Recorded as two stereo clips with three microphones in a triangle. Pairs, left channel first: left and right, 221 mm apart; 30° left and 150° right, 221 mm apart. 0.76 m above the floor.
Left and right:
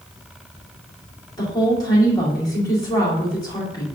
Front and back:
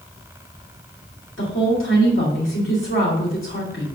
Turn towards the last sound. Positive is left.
turn(degrees=20)